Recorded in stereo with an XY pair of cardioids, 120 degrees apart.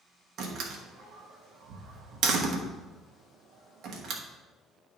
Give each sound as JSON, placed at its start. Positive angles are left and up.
{"t": 0.4, "sound": "a door slam", "azimuth_deg": -65, "distance_m": 1.5}